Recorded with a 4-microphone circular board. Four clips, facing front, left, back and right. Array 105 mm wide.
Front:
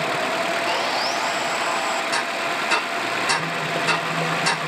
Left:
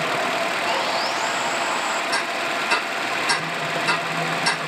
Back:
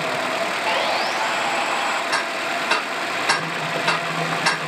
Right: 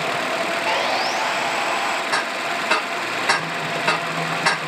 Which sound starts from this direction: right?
Ticking, at 2.1 s.